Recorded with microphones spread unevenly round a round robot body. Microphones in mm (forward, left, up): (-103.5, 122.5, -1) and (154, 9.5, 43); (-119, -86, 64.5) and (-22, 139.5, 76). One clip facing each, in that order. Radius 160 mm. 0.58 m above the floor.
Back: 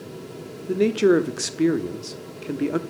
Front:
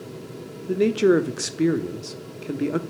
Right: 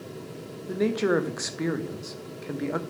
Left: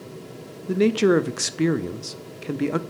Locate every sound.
0.7 s a man speaking: 80° left, 0.9 m